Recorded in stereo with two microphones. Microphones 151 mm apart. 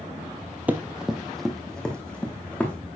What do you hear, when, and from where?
0.7 s running footsteps: 10° right (ahead or behind), 0.9 m; by 2.8 s 10° left (ahead or behind), 2.5 m